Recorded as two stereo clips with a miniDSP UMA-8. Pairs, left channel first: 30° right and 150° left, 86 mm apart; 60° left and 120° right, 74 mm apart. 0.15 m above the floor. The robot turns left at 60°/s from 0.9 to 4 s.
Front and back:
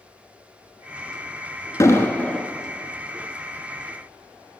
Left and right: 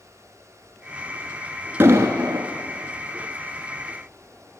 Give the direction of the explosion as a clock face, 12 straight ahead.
2 o'clock.